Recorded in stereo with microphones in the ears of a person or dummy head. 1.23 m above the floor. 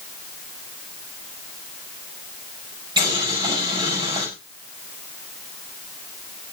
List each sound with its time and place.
3.0 s boiling: 25° right (ahead or behind), 8 m